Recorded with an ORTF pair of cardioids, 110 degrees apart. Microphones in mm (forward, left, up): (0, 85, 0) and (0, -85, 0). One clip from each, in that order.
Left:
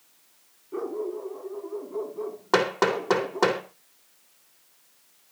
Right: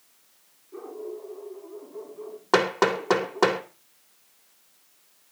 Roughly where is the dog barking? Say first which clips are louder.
Left 6 dB; ahead left.